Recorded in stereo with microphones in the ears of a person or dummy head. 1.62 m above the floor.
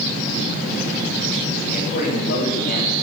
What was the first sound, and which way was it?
A man speaking, 55° left (ahead or behind).